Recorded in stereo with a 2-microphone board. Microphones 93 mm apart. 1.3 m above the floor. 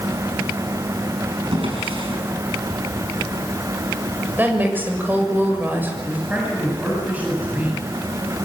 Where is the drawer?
80° right, 7 m.